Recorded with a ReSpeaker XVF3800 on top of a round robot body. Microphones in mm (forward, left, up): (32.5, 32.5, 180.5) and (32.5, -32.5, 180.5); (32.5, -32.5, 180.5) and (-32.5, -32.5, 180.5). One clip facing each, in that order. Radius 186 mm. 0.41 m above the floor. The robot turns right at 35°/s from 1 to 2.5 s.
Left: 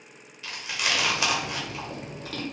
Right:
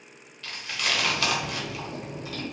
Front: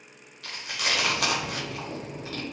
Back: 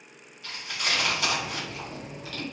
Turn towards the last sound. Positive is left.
turn(degrees=65)